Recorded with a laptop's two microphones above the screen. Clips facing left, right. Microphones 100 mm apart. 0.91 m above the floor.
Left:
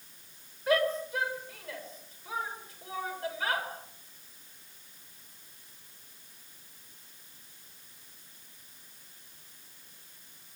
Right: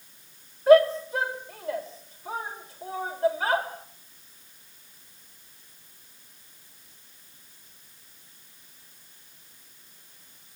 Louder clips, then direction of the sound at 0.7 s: Right 11 dB; 35° right (ahead or behind).